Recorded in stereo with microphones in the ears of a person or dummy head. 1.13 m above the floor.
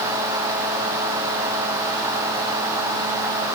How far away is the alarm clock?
No alarm clock in this recording.